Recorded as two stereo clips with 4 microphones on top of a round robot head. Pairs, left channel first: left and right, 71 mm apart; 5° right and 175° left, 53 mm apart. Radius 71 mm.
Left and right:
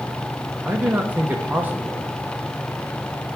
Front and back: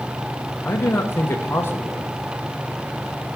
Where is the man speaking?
30° right, 1.0 m.